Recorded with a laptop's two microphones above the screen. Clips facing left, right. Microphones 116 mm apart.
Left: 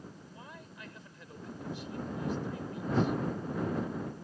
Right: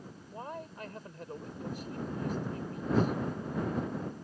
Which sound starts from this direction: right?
A man speaking, at 0.3 s.